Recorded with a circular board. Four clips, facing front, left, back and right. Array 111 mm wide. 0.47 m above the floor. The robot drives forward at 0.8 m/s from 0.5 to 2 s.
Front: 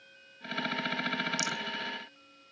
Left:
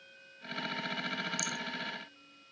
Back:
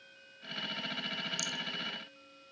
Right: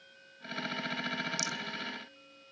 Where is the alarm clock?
I don't hear an alarm clock.